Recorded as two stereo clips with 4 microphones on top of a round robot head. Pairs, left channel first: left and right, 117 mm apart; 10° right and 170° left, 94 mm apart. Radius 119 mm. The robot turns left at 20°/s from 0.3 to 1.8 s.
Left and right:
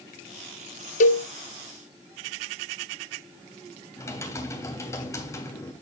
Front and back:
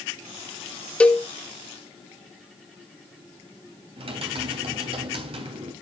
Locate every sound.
1.0 s a cowbell: 65° left, 0.7 m; by 1.3 s 60° left, 0.7 m
4.0 s typing on a keyboard: 155° left, 3 m